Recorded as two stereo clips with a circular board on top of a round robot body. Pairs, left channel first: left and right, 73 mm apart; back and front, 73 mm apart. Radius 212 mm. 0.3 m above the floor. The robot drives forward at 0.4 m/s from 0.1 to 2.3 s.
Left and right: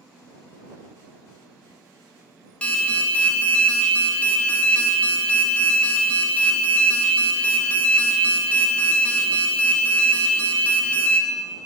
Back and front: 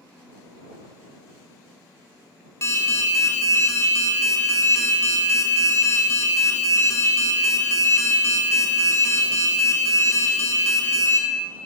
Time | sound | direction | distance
2.6 | an alarm | 155° left | 0.6 m